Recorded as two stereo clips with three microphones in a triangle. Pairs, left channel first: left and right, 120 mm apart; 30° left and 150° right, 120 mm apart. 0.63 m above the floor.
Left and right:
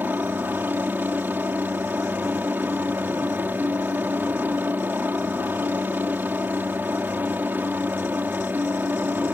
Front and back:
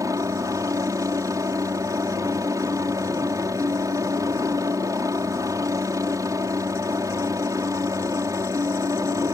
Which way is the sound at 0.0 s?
145° right.